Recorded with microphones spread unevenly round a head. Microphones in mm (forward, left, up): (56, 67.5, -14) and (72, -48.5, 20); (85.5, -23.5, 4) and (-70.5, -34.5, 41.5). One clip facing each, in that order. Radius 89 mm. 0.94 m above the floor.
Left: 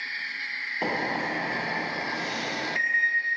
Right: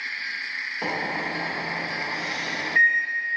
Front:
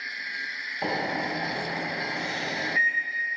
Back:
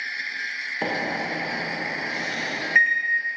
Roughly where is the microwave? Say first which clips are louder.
Left 1 dB, back 1 dB; behind.